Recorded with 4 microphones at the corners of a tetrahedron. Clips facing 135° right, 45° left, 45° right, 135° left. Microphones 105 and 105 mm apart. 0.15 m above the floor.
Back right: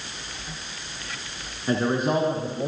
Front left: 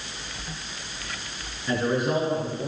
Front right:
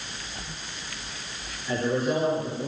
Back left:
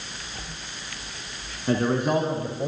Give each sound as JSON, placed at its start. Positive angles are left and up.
{"t": 1.7, "sound": "a man speaking", "azimuth_deg": 170, "distance_m": 7.0}